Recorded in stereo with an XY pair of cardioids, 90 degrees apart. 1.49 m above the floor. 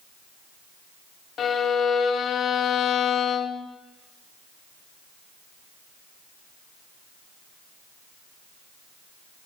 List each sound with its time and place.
1.4 s a violin: 65° left, 0.7 m